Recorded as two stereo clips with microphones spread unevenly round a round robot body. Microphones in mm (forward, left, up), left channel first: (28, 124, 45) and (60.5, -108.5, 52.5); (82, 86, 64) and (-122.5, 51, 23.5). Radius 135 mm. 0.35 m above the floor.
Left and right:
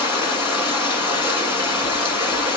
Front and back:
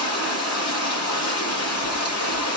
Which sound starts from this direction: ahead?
Running water, at 0.0 s.